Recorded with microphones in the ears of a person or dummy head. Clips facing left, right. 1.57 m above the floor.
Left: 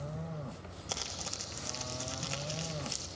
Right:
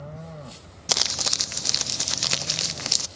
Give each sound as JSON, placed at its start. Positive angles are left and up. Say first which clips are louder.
{"t": 0.9, "sound": "crumpling", "louder": "right 11 dB", "side_deg": -80, "distance_m": 0.8}